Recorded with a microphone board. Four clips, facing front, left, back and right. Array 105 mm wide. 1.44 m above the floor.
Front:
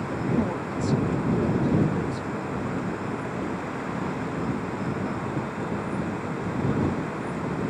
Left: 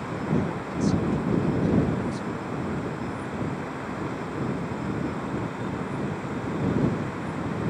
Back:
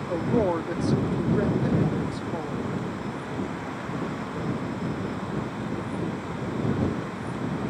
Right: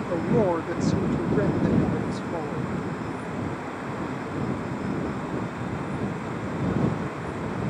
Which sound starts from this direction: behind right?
A woman speaking, at 0.1 s.